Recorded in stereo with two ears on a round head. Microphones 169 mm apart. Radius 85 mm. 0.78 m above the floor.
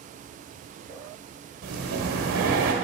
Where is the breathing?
85° right, 1.5 m.